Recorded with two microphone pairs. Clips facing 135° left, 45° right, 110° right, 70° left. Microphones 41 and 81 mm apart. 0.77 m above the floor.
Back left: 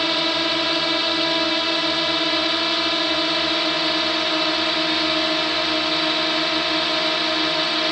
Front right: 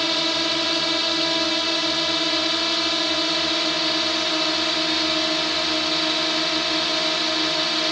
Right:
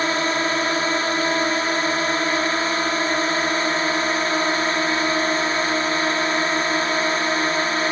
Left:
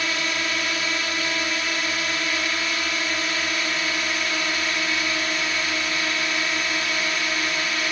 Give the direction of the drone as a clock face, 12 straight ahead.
5 o'clock.